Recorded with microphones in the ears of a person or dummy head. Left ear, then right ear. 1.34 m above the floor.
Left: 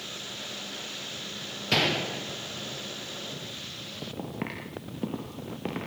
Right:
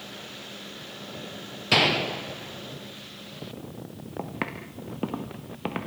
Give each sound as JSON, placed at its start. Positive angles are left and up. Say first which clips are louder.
{"t": 1.7, "sound": "a gunshot", "louder": "right 4 dB", "side_deg": -25, "distance_m": 0.6}
{"t": 4.2, "sound": "footsteps", "louder": "right 7 dB", "side_deg": -70, "distance_m": 3.5}